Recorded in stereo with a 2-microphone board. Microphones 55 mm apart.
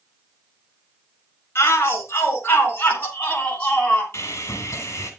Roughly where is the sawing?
Left.